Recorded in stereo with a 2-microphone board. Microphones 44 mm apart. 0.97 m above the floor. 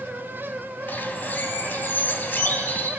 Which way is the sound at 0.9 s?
45° left (ahead or behind).